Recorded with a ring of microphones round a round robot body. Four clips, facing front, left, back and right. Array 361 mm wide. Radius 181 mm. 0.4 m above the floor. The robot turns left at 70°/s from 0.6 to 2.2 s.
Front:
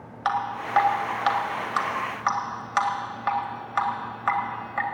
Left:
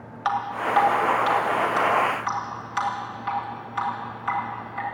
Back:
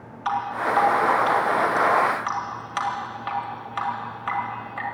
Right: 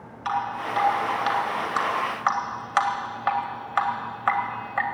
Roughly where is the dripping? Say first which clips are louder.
Left 2 dB, back 2 dB; ahead left.